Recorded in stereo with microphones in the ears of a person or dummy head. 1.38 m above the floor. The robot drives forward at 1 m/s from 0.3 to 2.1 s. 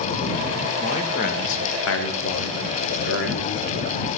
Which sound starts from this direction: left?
A man speaking, at 0.8 s.